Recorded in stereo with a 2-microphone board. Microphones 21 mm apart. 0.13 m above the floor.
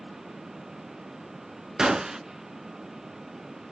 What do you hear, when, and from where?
1.8 s a gunshot: 30° right (ahead or behind), 0.6 m